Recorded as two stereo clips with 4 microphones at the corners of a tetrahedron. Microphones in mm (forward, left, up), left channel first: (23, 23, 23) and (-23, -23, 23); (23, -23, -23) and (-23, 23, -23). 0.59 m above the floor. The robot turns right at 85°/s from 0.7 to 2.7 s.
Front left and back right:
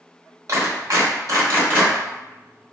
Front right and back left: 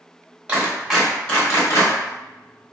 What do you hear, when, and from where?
0.5 s a clap: 155° right, 2 m; by 1.9 s 55° right, 2 m